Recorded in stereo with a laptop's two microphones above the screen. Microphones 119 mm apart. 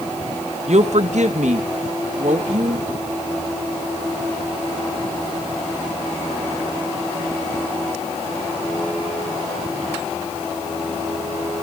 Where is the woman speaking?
60° right (ahead or behind), 0.9 m; by 2.9 s 70° right (ahead or behind), 2 m.